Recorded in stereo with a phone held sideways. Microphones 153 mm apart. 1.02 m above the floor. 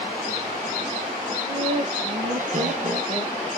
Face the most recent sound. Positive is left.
turn(degrees=-50)  # may be behind; listen again after turning